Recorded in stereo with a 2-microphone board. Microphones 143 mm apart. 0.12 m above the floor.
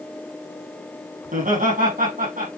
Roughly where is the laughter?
Right.